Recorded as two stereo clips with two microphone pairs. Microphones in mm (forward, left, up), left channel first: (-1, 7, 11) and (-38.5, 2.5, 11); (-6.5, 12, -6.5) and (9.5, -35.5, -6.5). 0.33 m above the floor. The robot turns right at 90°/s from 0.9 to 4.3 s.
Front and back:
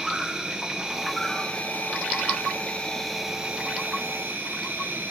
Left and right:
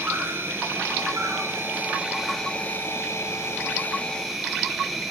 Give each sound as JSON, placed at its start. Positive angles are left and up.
{"t": 0.0, "sound": "an insect", "azimuth_deg": -105, "distance_m": 1.2}